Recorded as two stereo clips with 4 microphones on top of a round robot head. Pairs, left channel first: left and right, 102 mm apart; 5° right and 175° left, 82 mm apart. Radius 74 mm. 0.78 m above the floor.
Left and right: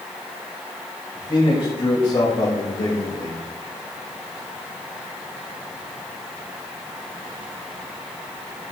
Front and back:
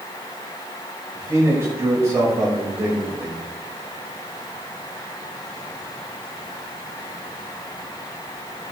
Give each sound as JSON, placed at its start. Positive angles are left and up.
{"t": 1.1, "sound": "a man speaking", "azimuth_deg": 120, "distance_m": 3.5}